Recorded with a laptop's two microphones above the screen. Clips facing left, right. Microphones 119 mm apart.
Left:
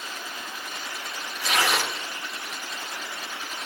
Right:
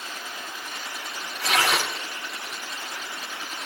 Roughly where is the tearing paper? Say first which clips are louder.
Right 1 dB; right.